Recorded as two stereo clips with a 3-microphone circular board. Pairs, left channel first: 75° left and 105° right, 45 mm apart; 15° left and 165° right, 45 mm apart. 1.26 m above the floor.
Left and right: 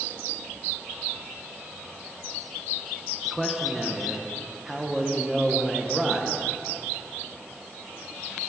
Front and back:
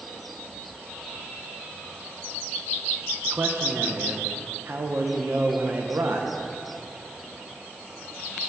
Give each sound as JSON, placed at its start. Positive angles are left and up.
{"t": 3.2, "sound": "a man speaking", "azimuth_deg": 170, "distance_m": 1.1}